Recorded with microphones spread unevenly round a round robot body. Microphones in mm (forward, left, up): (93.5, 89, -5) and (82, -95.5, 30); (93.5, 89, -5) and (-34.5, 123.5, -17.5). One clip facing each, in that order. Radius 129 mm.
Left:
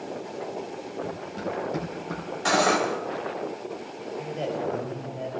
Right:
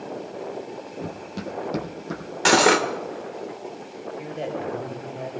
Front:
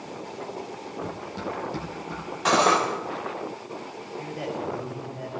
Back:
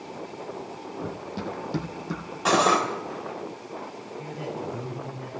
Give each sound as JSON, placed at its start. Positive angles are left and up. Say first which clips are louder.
{"t": 1.0, "sound": "running footsteps", "louder": "left 1 dB, even", "azimuth_deg": -120, "distance_m": 1.1}
{"t": 2.5, "sound": "cutlery clinking", "louder": "right 5 dB, even", "azimuth_deg": -105, "distance_m": 1.1}
{"t": 4.2, "sound": "a man speaking", "louder": "left 1 dB, front 2 dB", "azimuth_deg": -15, "distance_m": 4.0}